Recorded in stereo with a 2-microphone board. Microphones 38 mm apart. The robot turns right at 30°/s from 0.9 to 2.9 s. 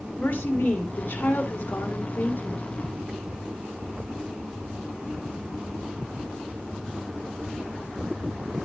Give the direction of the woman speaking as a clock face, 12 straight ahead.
10 o'clock.